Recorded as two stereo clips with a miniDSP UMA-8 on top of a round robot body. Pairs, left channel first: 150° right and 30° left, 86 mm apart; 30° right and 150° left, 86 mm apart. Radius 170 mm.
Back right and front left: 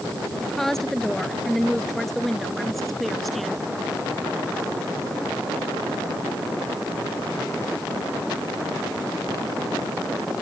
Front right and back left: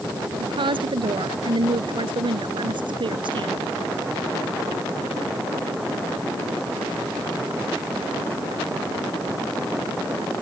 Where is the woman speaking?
125° left; by 3.6 s 120° left.